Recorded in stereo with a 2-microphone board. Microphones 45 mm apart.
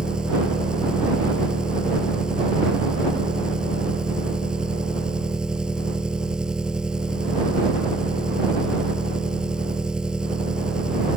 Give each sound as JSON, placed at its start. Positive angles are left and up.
{"t": 0.0, "sound": "an engine running", "side_deg": -20}